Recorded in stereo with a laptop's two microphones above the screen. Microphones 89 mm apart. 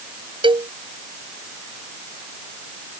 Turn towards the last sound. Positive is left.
turn(degrees=-70)  # may be behind; listen again after turning